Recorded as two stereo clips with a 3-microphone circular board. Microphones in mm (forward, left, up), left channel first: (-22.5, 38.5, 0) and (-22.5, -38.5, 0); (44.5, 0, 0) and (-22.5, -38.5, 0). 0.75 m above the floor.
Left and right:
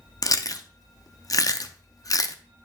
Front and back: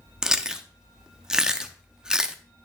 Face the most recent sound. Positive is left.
turn(degrees=130)